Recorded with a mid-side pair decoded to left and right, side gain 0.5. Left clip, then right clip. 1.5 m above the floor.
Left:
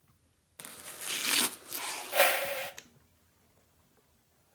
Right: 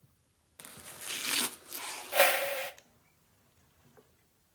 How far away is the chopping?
About 0.7 m.